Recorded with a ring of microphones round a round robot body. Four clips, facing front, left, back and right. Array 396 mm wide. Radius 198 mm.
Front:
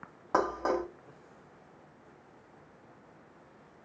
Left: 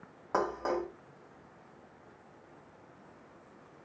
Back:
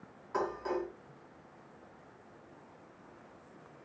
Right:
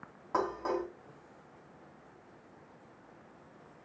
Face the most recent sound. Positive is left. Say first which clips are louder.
# left 1 dB, front 5 dB
turn(degrees=25)